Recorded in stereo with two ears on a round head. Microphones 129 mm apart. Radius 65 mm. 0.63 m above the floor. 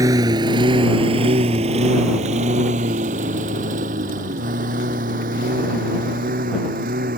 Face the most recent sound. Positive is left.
turn(degrees=-65)  # may be behind; listen again after turning